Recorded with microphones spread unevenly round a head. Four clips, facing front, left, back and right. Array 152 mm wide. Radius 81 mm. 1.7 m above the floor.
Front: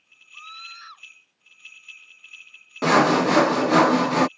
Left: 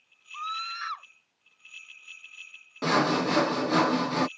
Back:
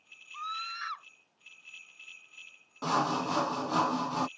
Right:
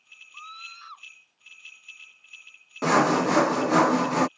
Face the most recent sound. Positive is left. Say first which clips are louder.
# right 4 dB, front 12 dB
turn(degrees=-20)